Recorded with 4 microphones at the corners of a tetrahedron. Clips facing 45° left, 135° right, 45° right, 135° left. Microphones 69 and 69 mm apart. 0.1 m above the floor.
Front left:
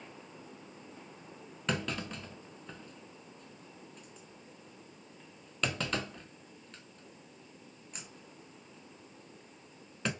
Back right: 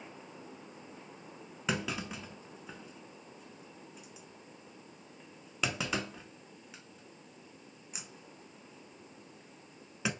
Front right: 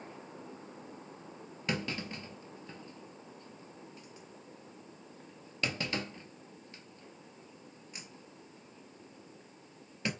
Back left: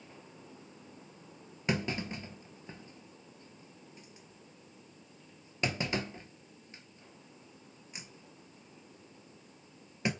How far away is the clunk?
About 0.6 m.